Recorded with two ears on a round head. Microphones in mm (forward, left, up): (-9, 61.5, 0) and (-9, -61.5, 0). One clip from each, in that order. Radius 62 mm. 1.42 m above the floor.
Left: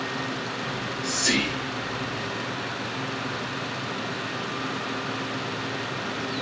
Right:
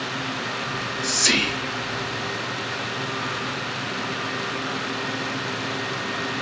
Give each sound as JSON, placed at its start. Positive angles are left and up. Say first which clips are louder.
{"t": 0.7, "sound": "whispering", "louder": "right 4 dB", "side_deg": -60, "distance_m": 2.5}